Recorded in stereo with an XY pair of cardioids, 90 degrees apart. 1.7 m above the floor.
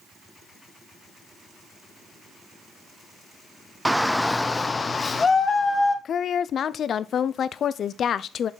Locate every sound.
3.9 s a shout: 10° right, 0.6 m; by 6.0 s 40° left, 1.8 m
6.0 s a woman speaking: 60° left, 0.5 m